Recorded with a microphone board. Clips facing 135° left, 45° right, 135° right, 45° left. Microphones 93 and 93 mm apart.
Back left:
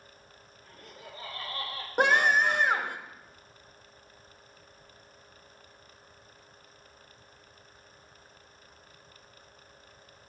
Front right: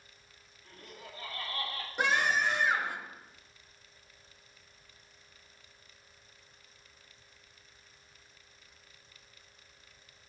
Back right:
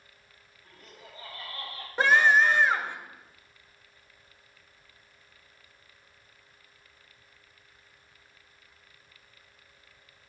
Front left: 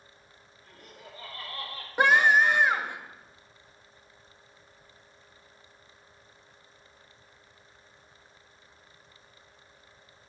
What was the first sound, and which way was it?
Laughter, 70° left.